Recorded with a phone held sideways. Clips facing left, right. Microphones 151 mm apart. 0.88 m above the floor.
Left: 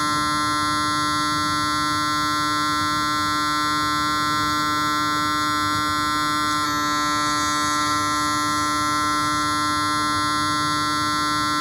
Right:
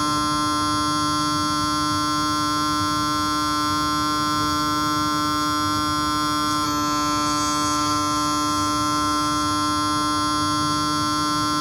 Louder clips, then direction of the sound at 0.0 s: Right 2 dB; 10° right (ahead or behind).